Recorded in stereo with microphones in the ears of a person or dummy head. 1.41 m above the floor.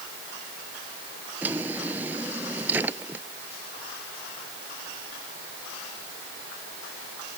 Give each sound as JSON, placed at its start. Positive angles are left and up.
{"t": 1.4, "sound": "a drawer", "side_deg": -15}